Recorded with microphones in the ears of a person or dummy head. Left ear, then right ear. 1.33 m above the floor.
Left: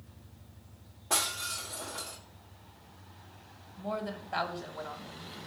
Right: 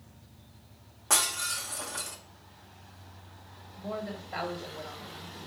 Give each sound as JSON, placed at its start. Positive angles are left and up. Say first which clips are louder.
{"t": 0.0, "sound": "an engine running", "louder": "right 1 dB", "side_deg": -80, "distance_m": 2.5}
{"t": 1.1, "sound": "breaking glass", "louder": "right 3 dB", "side_deg": -50, "distance_m": 1.2}
{"t": 3.8, "sound": "a woman speaking", "louder": "left 1 dB", "side_deg": 10, "distance_m": 1.2}